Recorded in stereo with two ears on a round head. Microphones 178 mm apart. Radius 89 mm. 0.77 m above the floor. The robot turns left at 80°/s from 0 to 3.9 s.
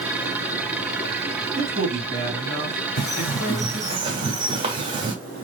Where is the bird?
50° left, 1.1 m; by 5.2 s 25° right, 1.1 m.